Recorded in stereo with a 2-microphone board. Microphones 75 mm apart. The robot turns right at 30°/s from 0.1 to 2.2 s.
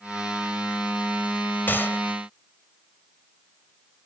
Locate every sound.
1.7 s a gunshot: 25° left (ahead or behind); by 2.0 s 35° left (ahead or behind)